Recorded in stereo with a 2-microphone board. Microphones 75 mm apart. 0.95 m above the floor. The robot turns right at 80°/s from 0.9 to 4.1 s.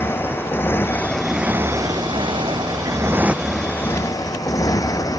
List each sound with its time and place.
0.0 s a motorcycle: 150° left; by 5.2 s 50° left